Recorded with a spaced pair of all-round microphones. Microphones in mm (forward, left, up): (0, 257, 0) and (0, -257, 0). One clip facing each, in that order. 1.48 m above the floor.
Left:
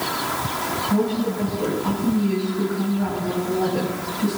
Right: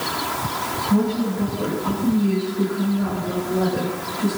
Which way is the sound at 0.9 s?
10° right (ahead or behind).